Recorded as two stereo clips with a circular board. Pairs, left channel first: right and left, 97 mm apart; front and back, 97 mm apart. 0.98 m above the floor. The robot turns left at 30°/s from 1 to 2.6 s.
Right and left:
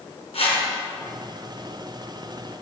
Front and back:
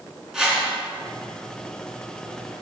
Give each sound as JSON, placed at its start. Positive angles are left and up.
{"t": 0.3, "sound": "a whoosh", "azimuth_deg": -95, "distance_m": 3.5}